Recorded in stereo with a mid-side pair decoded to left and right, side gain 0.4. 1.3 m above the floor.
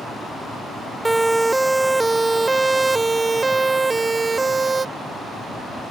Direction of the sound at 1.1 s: 15° right.